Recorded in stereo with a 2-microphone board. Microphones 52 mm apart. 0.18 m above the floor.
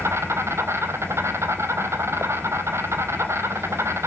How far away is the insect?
About 1.1 m.